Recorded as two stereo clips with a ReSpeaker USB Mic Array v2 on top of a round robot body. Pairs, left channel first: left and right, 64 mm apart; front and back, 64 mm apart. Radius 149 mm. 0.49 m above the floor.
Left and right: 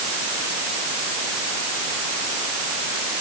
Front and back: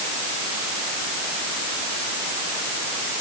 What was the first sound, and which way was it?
Only background noise.